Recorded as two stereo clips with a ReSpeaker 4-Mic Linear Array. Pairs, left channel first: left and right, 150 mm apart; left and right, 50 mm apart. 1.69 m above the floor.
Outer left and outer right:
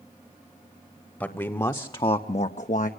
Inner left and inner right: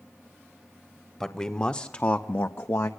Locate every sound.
1.2 s a man speaking: 10° left (ahead or behind), 1.1 m; by 2.9 s 65° left (ahead or behind), 0.8 m